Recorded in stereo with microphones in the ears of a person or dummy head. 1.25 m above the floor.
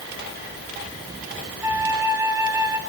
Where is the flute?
15° right (ahead or behind), 3 m.